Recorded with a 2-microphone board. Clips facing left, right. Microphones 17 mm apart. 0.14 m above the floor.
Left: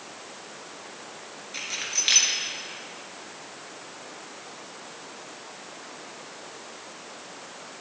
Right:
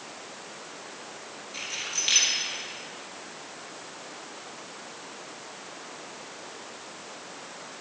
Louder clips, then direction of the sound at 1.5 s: Left 3 dB; 20° left (ahead or behind).